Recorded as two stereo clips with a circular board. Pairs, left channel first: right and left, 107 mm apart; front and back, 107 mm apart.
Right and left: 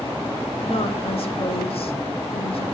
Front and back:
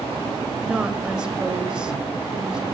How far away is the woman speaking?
About 2.5 m.